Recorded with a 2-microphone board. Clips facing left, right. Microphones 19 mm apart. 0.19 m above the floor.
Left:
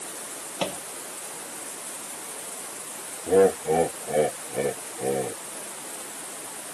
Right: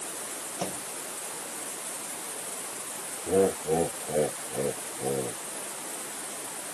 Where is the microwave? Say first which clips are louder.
Left 5 dB; 70° left (ahead or behind).